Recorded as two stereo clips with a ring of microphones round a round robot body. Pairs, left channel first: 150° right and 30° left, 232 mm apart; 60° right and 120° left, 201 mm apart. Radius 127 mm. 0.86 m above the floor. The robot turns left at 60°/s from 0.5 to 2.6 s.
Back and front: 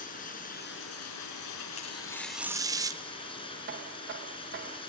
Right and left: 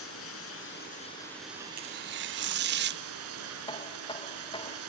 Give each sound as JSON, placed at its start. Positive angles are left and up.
{"t": 0.0, "sound": "running water", "azimuth_deg": -95, "distance_m": 4.5}
{"t": 1.8, "sound": "tearing paper", "azimuth_deg": 155, "distance_m": 1.2}
{"t": 3.7, "sound": "knocking", "azimuth_deg": 0, "distance_m": 0.9}